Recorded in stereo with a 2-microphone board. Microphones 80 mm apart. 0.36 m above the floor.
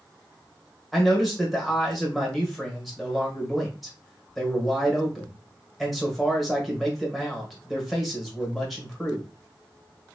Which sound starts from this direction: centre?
A man speaking, at 0.9 s.